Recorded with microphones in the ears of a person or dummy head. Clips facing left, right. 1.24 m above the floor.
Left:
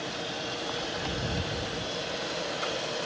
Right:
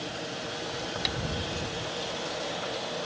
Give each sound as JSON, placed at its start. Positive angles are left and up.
{"t": 1.1, "sound": "tapping", "side_deg": -25}